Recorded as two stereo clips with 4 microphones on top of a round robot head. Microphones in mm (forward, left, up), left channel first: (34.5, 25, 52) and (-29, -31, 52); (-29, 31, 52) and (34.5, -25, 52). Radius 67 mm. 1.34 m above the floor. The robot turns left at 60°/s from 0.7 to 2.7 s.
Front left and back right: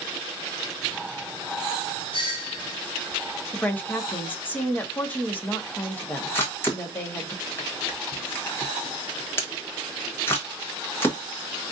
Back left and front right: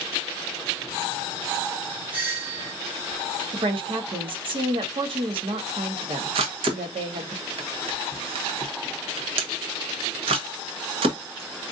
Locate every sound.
2.1 s a doorbell: 30° left, 2.5 m; by 2.8 s 5° right, 2.5 m
3.5 s a woman speaking: 30° right, 1.2 m
6.3 s a camera shutter: 25° right, 1.3 m